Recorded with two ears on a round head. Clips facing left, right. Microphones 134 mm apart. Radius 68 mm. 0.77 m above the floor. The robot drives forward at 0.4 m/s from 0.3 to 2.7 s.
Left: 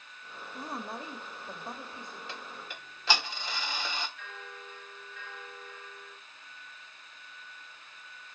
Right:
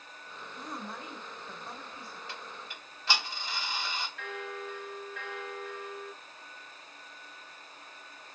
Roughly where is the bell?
Right.